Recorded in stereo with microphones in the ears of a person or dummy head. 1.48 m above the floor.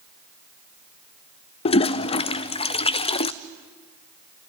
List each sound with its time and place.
1.6 s a toilet flushing: 30° left (ahead or behind), 0.5 m